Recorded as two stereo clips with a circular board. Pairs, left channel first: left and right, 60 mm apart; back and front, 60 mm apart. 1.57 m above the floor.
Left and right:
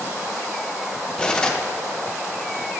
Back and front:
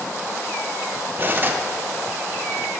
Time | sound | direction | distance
1.2 | cutlery clinking | 20° left | 0.7 m